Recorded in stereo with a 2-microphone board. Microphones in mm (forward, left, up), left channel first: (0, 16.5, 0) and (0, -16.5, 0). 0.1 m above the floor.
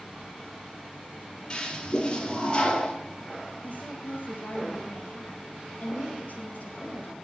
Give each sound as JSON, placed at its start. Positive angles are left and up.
{"t": 1.5, "sound": "a toilet flushing", "side_deg": 30, "distance_m": 2.5}
{"t": 3.6, "sound": "a woman speaking", "side_deg": 70, "distance_m": 4.0}